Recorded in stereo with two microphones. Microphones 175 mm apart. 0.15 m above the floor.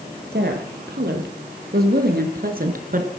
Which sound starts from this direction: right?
A woman speaking, at 0.3 s.